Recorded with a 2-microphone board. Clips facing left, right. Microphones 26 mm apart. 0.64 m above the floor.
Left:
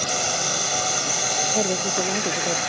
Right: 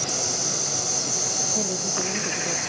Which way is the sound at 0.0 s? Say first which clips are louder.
Left 3 dB; 60° left (ahead or behind).